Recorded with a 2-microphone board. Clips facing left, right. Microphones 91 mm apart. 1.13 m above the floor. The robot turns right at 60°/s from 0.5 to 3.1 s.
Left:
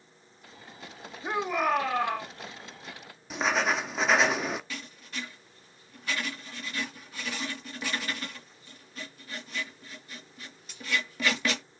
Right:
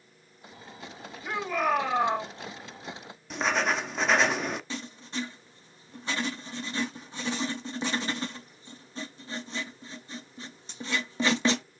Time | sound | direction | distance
1.2 | a shout | 150° left | 2.5 m
3.3 | writing | centre (ahead or behind) | 0.9 m
4.7 | writing | 30° right (ahead or behind) | 2.0 m